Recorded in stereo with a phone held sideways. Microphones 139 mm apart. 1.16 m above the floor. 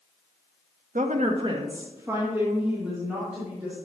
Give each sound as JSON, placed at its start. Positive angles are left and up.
{"t": 0.9, "sound": "a woman speaking", "side_deg": -65, "distance_m": 0.9}